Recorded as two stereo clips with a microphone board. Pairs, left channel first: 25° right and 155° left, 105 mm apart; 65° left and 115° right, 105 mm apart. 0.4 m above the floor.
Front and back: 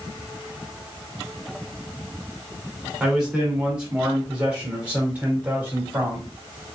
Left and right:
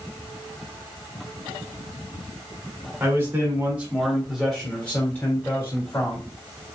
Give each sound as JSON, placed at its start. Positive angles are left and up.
{"t": 3.0, "sound": "a man speaking", "azimuth_deg": -125, "distance_m": 1.5}